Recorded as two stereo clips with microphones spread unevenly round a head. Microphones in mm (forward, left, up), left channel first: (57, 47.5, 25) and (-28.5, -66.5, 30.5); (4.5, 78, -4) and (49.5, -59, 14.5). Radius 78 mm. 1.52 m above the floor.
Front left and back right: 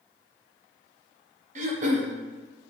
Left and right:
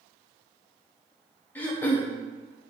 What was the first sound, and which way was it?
Throat clearing, 175° right.